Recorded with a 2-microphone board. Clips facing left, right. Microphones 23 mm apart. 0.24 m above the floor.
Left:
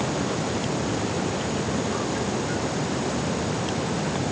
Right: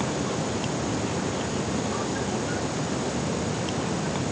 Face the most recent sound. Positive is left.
No sound to turn to.